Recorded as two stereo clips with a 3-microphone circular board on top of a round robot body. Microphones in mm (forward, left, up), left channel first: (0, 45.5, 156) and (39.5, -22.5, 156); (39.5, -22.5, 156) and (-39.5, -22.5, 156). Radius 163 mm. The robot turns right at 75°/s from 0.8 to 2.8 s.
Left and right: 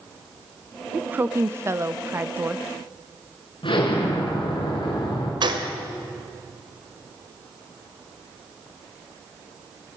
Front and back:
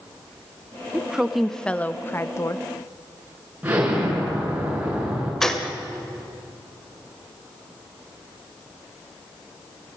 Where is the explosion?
105° left, 6 m.